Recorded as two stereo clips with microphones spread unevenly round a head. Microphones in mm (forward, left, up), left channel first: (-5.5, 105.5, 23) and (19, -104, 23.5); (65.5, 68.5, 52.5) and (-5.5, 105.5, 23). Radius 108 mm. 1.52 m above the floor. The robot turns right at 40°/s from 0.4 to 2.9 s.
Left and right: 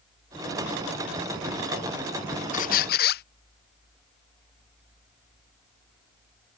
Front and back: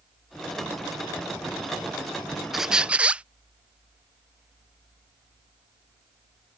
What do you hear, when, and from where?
2.5 s a squeak: 50° left; by 3.2 s 65° left